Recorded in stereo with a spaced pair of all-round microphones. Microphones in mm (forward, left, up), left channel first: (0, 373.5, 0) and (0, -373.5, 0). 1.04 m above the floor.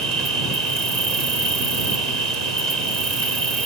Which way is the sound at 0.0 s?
60° right (ahead or behind).